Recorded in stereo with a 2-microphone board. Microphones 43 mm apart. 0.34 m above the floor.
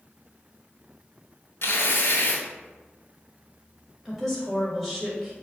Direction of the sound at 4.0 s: Centre (ahead or behind).